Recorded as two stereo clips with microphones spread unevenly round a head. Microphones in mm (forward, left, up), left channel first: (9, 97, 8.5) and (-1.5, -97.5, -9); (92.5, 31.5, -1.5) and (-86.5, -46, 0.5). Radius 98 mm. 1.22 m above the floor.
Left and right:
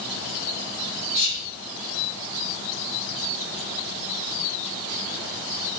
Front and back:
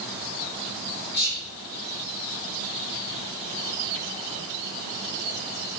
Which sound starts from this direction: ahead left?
Whispering, at 1.1 s.